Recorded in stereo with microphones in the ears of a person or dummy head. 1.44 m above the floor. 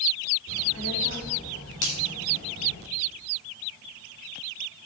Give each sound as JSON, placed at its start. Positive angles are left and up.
{"t": 0.5, "sound": "a child speaking", "side_deg": 75, "distance_m": 4.0}
{"t": 1.8, "sound": "a finger snap", "side_deg": 75, "distance_m": 5.0}